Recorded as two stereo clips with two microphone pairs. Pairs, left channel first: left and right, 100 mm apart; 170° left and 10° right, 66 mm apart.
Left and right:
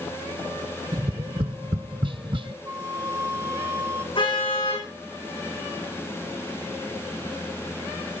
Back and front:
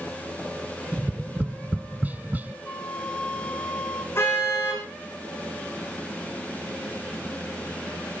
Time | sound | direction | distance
0.9 | tapping | 70° right | 0.5 m
2.6 | a flute | 130° right | 1.2 m
4.2 | a car horn | 120° left | 9 m